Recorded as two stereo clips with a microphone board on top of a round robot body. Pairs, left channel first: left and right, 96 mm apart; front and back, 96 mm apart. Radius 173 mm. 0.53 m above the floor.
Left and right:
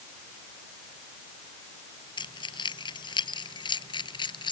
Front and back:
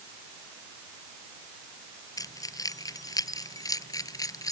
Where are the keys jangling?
50° left.